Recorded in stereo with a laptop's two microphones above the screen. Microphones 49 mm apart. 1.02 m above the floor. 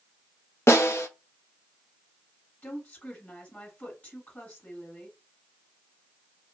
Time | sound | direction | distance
0.7 | a snare drum | 65° left (ahead or behind) | 0.7 m
2.6 | a woman speaking | 35° left (ahead or behind) | 1.7 m